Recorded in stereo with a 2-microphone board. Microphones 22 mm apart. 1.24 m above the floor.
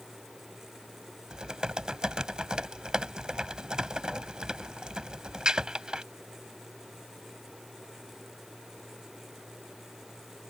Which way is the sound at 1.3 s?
35° right (ahead or behind).